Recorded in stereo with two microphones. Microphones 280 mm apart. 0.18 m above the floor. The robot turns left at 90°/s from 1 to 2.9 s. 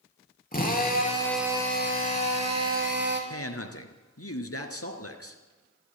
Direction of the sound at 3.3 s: 55° left (ahead or behind).